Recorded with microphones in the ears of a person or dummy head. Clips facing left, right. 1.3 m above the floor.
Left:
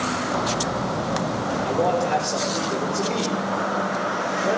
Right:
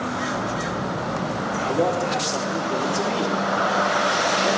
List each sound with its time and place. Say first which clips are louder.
1.6 s a man speaking: even; 80° right, 3.5 m